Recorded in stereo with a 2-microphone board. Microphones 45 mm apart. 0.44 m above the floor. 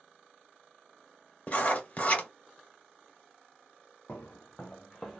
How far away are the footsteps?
About 0.8 m.